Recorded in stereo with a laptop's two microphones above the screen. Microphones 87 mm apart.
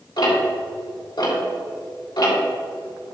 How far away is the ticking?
About 3 m.